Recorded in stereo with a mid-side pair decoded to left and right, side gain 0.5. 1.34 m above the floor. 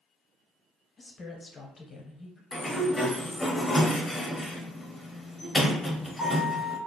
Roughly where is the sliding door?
Ahead.